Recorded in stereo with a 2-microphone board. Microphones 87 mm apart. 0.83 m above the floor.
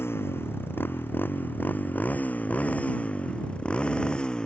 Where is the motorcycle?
30° left (ahead or behind); by 4.5 s 10° left (ahead or behind).